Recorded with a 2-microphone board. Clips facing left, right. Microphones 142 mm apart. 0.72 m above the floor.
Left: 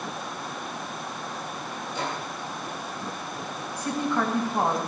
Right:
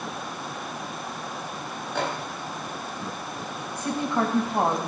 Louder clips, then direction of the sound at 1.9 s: Right 4 dB; 65° right (ahead or behind).